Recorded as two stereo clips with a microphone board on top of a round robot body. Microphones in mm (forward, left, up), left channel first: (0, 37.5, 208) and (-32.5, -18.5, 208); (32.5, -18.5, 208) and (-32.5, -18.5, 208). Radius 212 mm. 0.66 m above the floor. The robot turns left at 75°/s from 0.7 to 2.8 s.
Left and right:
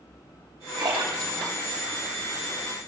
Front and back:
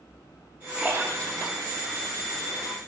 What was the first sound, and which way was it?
A splash, 110° right.